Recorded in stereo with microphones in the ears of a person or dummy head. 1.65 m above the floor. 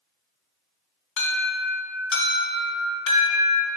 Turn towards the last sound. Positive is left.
turn(degrees=55)  # may be behind; listen again after turning